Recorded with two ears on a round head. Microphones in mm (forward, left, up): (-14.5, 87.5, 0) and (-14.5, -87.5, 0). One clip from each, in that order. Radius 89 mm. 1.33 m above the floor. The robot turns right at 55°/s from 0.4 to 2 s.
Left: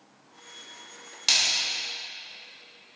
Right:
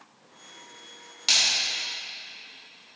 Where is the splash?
20° left (ahead or behind), 2.5 m; by 1.4 s 10° left (ahead or behind), 2.5 m.